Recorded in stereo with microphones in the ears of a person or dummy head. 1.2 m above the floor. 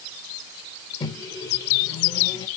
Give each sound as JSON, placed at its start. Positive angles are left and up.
{"t": 1.0, "sound": "a microwave", "side_deg": 25, "distance_m": 1.2}